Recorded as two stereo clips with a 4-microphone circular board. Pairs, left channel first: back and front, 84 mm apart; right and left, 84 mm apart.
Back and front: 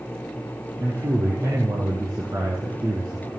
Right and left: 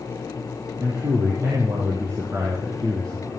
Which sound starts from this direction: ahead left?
A man speaking, at 0.8 s.